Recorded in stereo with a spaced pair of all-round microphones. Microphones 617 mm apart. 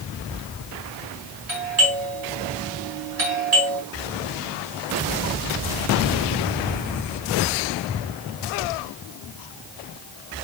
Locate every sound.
1.5 s a doorbell: 80° right, 4 m